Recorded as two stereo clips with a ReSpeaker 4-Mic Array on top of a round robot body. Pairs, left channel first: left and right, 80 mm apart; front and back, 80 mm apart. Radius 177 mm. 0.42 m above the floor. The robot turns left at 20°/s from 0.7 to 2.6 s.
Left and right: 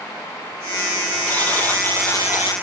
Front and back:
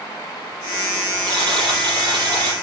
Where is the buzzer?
165° left, 5.5 m; by 2.5 s 140° left, 5.5 m.